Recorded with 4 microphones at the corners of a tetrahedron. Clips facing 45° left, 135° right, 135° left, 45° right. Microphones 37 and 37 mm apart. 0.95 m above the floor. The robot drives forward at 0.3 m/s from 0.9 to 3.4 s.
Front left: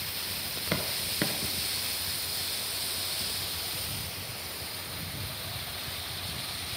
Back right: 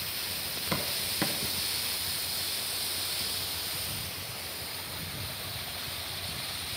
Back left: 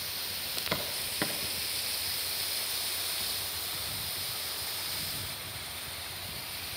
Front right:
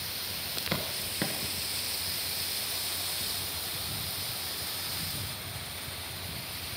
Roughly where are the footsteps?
Ahead left.